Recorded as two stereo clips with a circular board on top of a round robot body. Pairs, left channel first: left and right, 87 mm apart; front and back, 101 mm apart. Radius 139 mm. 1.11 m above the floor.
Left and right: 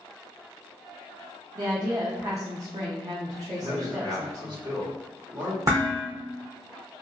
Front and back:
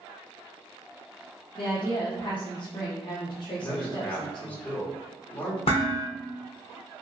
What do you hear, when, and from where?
1.6 s a woman speaking: 40° right, 0.6 m
3.6 s a man speaking: 70° right, 1.3 m
5.7 s dishes clattering: 30° right, 0.8 m